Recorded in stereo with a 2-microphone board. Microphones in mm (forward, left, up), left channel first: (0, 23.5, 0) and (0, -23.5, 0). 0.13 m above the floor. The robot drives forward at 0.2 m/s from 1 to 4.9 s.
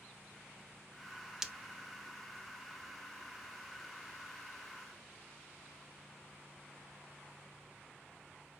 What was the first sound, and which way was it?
Breaking glass, 10° right (ahead or behind).